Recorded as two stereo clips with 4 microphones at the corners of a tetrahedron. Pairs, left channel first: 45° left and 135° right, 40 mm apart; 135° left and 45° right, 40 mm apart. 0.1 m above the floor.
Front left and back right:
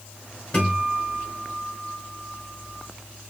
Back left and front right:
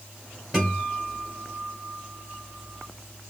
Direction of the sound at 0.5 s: 15° left.